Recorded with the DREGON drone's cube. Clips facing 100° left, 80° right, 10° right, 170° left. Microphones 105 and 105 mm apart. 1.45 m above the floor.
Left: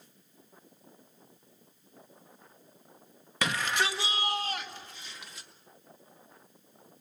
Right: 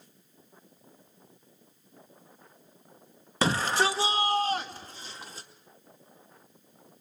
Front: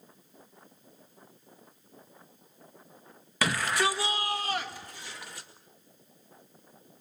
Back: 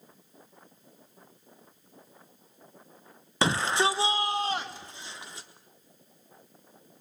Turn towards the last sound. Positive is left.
turn(degrees=-125)